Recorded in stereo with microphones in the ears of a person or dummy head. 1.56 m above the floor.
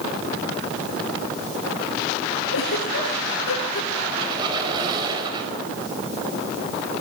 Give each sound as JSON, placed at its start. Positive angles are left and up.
{"t": 2.5, "sound": "a giggle", "side_deg": 80, "distance_m": 7.0}
{"t": 4.1, "sound": "a squeak", "side_deg": -30, "distance_m": 5.0}